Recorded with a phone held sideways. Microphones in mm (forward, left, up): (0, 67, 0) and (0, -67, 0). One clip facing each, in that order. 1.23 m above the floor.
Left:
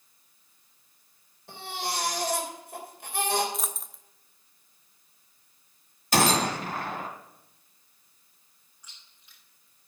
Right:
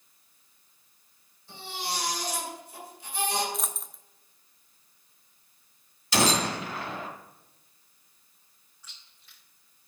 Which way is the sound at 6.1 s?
50° left (ahead or behind).